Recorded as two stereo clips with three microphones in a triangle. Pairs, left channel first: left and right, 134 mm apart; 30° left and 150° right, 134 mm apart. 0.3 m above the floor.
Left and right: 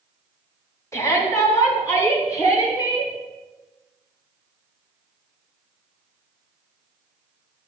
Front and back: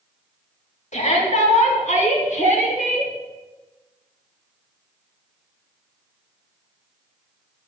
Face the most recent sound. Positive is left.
turn(degrees=25)